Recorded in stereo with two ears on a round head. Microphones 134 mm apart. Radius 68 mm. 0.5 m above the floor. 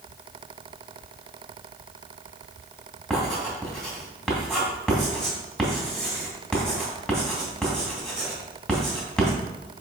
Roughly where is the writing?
Centre.